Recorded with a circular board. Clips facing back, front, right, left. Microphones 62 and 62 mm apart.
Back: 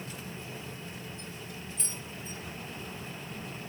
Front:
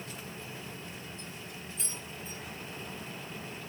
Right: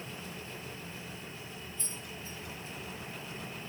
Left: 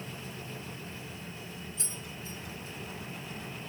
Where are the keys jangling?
85° left, 10 m.